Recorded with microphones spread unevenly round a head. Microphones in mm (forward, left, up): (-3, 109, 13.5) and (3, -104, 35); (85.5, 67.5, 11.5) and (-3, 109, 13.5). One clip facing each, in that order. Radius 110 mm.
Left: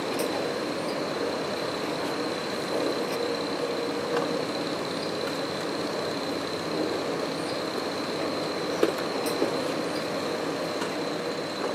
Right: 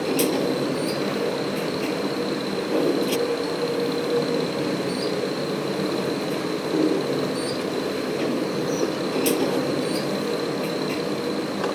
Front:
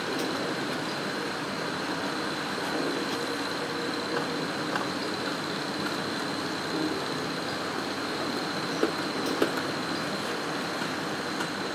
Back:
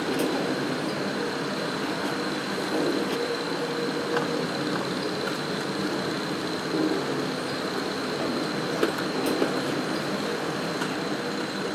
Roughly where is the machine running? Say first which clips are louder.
Right 7 dB, back 5 dB; behind right.